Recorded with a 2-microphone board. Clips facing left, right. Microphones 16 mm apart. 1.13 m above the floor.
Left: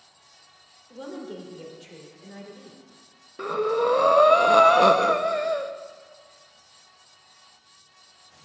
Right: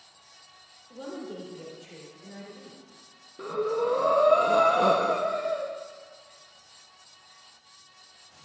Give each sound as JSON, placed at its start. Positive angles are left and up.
{"t": 0.9, "sound": "a woman speaking", "side_deg": 20, "distance_m": 3.5}
{"t": 3.4, "sound": "breathing", "side_deg": 40, "distance_m": 0.7}